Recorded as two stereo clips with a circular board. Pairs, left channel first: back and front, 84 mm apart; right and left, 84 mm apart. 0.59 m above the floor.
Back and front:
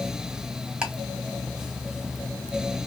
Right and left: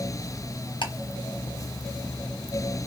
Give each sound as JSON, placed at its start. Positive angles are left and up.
{"t": 0.8, "sound": "ticking", "azimuth_deg": -80, "distance_m": 0.9}